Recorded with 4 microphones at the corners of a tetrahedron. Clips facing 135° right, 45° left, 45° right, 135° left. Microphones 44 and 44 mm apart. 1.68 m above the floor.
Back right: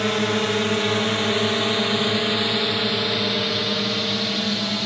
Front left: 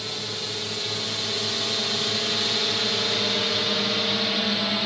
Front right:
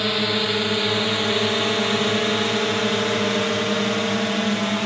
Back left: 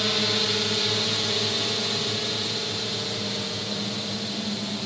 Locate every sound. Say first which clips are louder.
0.0 s a drone: back right 11 dB, front right 3 dB; 115° right; by 4.9 s 35° right